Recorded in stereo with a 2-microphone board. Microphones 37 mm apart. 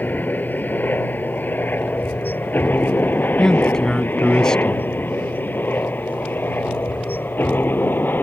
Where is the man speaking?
15° left (ahead or behind).